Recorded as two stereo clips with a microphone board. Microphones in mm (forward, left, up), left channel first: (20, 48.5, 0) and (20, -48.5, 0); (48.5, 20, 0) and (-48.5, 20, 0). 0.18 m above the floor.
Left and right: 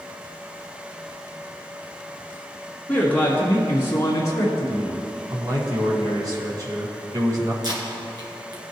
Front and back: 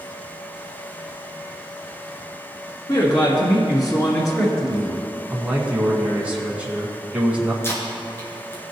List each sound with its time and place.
2.9 s a man speaking: 20° left, 2.5 m; by 5.0 s 55° left, 3 m
5.3 s a man speaking: 110° right, 1.6 m
7.6 s tape being pulled: 60° right, 2 m